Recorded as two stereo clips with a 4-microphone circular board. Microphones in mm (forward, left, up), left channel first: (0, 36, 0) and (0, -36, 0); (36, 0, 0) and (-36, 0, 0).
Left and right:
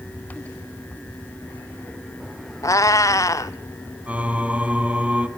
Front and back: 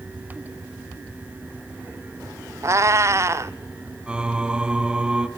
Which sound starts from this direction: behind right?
Singing, at 4.1 s.